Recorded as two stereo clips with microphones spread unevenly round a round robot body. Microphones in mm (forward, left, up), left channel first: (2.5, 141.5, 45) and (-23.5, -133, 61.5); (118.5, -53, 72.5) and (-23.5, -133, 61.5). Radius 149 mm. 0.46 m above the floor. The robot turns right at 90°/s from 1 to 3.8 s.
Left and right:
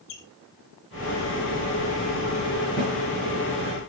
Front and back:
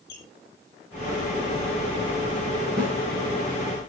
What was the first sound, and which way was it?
A squeak, 70° left.